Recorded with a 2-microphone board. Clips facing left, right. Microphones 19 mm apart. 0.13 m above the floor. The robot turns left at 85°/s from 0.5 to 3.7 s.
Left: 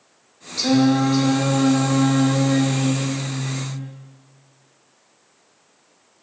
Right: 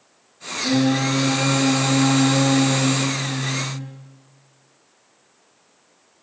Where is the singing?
120° left, 4.5 m; by 3.9 s 145° right, 4.5 m.